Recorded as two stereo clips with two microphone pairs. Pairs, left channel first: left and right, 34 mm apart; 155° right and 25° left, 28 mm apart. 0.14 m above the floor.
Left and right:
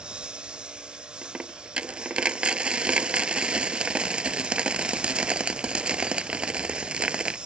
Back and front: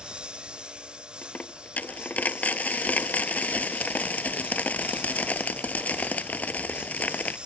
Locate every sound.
0.0 s a lawn mower: 30° right
1.2 s a dropped coin: 150° right